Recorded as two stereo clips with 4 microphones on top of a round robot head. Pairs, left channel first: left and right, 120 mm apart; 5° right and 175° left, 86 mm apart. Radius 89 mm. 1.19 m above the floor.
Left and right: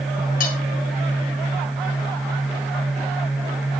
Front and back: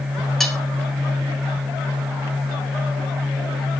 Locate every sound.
0.4 s cutlery clinking: 85° left, 2.5 m